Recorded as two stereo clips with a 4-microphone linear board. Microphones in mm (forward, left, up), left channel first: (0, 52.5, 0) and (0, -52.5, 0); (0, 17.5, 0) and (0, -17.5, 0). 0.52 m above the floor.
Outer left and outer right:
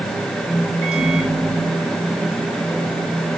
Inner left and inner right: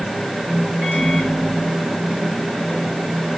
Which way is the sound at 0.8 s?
75° right (ahead or behind).